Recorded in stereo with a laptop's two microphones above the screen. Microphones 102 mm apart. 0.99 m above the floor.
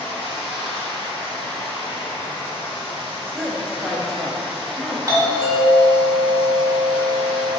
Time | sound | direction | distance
0.0 | running water | 70° left (ahead or behind) | 1.0 m
3.3 | a woman speaking | centre (ahead or behind) | 0.9 m
5.1 | a doorbell | 35° right (ahead or behind) | 1.1 m